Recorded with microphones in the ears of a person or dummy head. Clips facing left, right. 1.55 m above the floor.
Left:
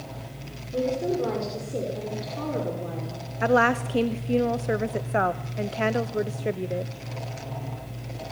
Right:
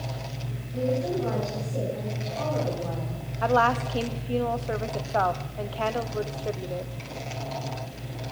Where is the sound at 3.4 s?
30° left (ahead or behind), 0.6 m.